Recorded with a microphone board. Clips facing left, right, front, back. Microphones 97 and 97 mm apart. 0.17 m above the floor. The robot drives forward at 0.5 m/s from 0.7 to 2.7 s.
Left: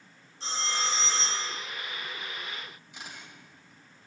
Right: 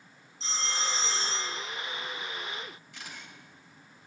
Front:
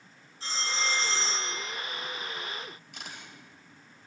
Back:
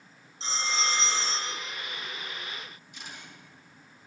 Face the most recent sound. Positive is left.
turn(degrees=25)